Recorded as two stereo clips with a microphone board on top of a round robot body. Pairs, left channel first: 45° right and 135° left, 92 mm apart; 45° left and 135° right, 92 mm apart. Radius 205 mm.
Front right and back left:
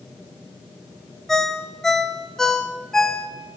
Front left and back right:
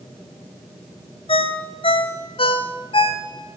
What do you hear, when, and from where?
1.3 s a ringtone: 40° left, 1.0 m